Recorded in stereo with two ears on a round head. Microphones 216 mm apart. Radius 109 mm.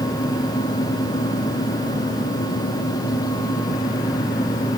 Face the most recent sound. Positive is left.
No sound to turn to.